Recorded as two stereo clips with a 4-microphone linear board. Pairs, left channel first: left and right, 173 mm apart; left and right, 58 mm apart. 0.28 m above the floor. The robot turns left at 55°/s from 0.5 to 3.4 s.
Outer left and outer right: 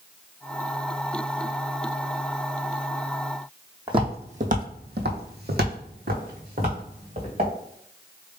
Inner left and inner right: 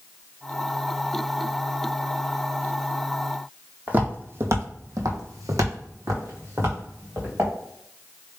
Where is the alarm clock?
No alarm clock in this recording.